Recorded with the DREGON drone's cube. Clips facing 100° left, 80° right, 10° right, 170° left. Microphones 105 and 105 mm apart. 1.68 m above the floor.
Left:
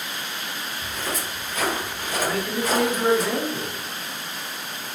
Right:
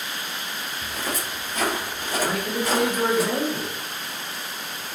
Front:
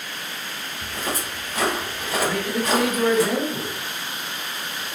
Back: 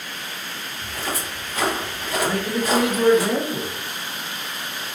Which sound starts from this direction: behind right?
A man speaking, at 2.2 s.